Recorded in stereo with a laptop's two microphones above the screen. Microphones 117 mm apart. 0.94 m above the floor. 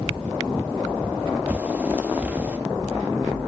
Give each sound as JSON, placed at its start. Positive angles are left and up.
{"t": 1.5, "sound": "a bird", "side_deg": -10, "distance_m": 0.7}